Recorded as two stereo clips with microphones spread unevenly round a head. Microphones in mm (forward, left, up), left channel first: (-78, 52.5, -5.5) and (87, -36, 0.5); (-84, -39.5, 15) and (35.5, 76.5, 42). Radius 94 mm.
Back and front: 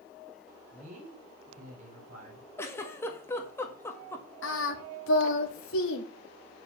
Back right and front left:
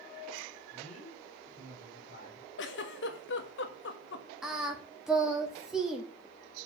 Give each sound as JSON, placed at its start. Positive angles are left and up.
{"t": 0.7, "sound": "a man speaking", "azimuth_deg": -80, "distance_m": 4.0}
{"t": 2.6, "sound": "a giggle", "azimuth_deg": -130, "distance_m": 1.4}
{"t": 4.4, "sound": "singing", "azimuth_deg": 130, "distance_m": 2.0}